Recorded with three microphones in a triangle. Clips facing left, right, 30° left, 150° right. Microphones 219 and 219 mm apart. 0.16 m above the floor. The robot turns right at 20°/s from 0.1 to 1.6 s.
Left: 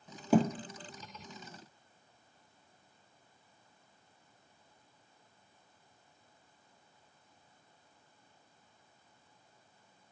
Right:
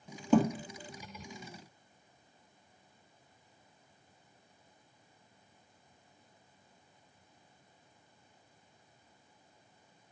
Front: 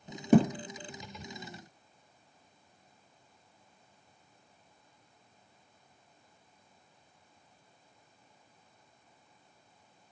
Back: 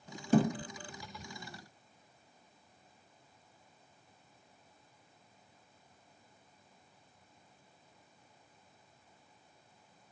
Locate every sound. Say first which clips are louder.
0.3 s a thud: right 1 dB, front 5 dB; 10° left, 1.0 m